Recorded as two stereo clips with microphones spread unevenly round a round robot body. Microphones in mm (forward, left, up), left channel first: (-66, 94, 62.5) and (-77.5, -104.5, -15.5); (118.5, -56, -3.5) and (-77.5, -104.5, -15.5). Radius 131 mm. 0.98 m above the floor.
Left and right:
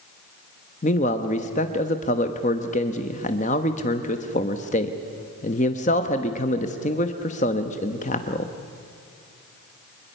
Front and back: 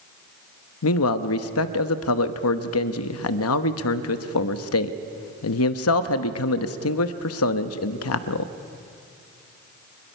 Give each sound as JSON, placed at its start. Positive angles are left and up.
{"t": 0.8, "sound": "a man speaking", "azimuth_deg": 20, "distance_m": 1.1}